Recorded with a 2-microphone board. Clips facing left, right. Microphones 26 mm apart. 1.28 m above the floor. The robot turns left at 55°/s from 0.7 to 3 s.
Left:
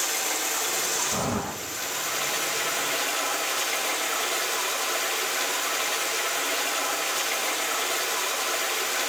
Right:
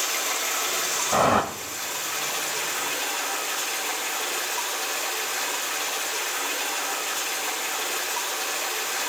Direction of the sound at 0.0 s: 155° right.